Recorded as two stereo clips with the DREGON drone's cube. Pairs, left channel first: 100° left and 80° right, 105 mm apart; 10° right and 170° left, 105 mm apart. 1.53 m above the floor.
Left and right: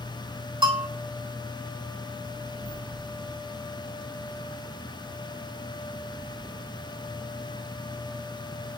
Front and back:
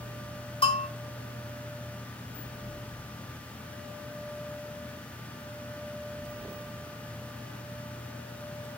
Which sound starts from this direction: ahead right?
A bell, at 0.6 s.